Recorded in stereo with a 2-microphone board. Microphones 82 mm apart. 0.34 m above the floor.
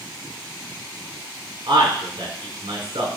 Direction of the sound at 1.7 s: 75° right (ahead or behind).